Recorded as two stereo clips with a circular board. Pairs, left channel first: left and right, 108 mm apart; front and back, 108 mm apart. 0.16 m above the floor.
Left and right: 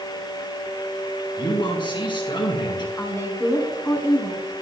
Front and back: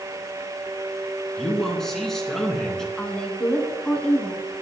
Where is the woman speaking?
70° left, 1.4 m.